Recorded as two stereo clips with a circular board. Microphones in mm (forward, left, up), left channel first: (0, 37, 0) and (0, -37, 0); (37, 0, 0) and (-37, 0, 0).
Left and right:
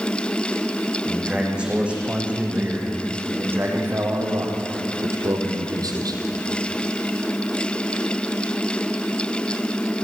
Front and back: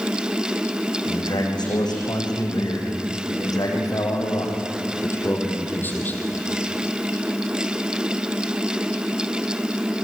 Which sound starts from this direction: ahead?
A man speaking, at 1.1 s.